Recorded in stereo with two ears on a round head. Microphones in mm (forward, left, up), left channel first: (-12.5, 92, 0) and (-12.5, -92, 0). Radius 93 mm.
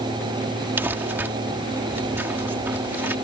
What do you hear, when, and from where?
0.8 s crumpling: 10° right (ahead or behind)